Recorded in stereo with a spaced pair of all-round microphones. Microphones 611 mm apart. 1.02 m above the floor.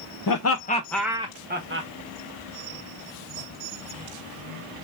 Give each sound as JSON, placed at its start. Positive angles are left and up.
{"t": 0.3, "sound": "laughter", "side_deg": 40, "distance_m": 0.5}